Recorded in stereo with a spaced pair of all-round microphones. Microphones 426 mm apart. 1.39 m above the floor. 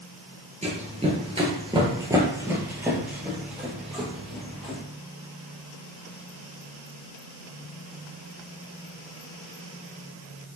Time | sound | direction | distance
0.6 | running footsteps | 15° right (ahead or behind) | 1.4 m